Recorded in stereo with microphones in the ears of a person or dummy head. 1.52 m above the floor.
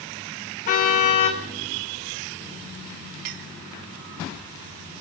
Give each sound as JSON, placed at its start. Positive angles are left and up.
{"t": 0.7, "sound": "a car horn", "side_deg": 45, "distance_m": 3.0}
{"t": 3.2, "sound": "a clink", "side_deg": -50, "distance_m": 0.6}